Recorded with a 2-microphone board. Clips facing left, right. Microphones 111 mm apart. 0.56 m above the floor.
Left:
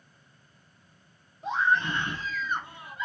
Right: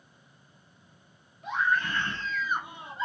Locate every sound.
1.4 s a scream: 30° left (ahead or behind), 1.3 m; by 3.1 s 35° right (ahead or behind), 0.9 m